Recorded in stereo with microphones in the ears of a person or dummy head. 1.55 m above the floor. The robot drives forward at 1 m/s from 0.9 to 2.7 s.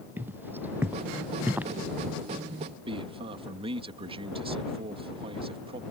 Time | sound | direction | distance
0.2 | footsteps | 15° right (ahead or behind) | ?
2.9 | a man speaking | 35° right (ahead or behind) | ?